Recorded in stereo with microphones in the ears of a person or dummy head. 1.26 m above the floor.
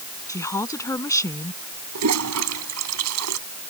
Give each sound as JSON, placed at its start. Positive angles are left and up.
{"t": 0.3, "sound": "a woman speaking", "side_deg": 15}
{"t": 1.9, "sound": "a toilet flushing", "side_deg": -85}